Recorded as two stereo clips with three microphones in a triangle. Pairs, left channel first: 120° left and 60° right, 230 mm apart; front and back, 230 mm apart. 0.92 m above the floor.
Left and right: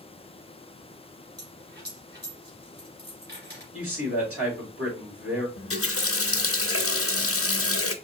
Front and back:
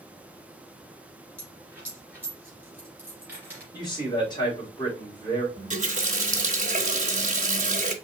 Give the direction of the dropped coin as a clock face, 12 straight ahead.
3 o'clock.